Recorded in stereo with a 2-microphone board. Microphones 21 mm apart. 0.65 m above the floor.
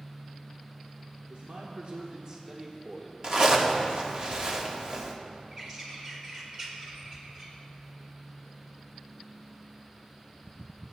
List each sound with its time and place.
1.3 s a man speaking: 70° right (ahead or behind), 1.3 m; by 3.1 s centre (ahead or behind), 1.5 m
3.2 s a zipper: 35° right (ahead or behind), 1.1 m
5.5 s a bird: 25° right (ahead or behind), 2 m